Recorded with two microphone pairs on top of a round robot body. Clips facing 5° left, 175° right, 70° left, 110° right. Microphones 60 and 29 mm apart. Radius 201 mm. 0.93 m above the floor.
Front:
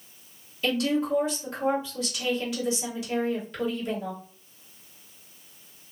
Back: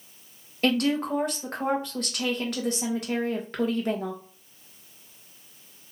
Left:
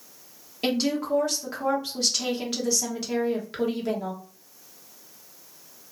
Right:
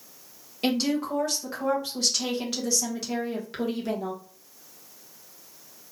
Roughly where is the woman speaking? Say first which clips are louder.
Back 1 dB, even; behind left.